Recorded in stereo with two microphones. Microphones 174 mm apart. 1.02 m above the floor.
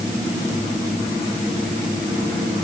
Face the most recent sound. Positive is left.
No sound to turn to.